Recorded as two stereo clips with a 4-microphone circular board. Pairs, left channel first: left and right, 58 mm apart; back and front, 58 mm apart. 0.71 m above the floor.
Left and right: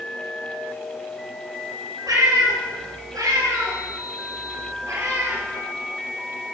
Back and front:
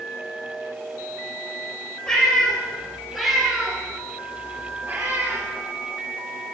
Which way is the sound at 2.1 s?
105° right.